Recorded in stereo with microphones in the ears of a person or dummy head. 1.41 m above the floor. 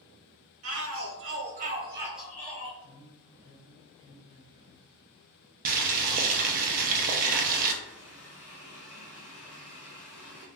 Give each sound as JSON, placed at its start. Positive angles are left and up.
{"t": 0.6, "sound": "a shout", "side_deg": -75, "distance_m": 1.2}
{"t": 2.8, "sound": "a woman speaking", "side_deg": -30, "distance_m": 1.8}
{"t": 5.7, "sound": "boiling", "side_deg": -50, "distance_m": 0.5}
{"t": 7.8, "sound": "a running tap", "side_deg": -5, "distance_m": 1.2}